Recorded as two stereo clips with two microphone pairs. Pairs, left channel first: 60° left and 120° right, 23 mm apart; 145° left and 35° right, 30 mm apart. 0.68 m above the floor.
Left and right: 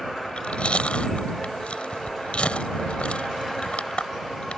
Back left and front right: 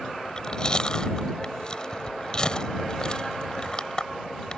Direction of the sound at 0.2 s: 85° left.